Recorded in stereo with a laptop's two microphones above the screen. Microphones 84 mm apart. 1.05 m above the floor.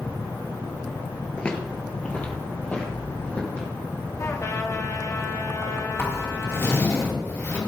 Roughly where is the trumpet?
Left.